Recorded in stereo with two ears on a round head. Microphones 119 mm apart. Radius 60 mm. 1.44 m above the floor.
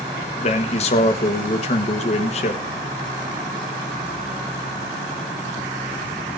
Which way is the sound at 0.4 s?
50° left (ahead or behind).